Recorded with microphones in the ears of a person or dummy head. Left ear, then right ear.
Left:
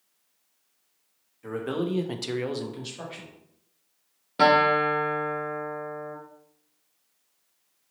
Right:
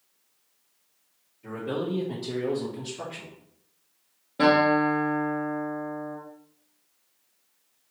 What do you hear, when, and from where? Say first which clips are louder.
1.4 s a man speaking: left 1 dB; 55° left (ahead or behind), 0.9 m; by 3.4 s 10° left (ahead or behind), 1.2 m
4.4 s a guitar: left 1 dB; 45° left (ahead or behind), 1.0 m